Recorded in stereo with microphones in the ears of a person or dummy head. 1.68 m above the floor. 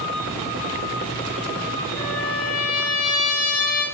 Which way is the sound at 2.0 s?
20° left (ahead or behind).